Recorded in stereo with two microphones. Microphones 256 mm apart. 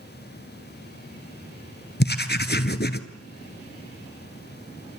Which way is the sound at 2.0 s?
40° left (ahead or behind).